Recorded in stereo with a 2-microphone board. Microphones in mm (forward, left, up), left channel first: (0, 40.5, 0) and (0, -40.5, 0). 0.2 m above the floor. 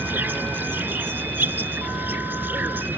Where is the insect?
25° right (ahead or behind).